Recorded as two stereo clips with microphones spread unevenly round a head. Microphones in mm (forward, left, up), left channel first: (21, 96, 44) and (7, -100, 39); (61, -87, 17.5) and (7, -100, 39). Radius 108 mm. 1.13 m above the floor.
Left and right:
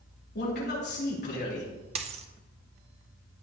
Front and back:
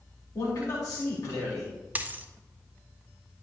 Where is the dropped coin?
150° right, 0.5 m.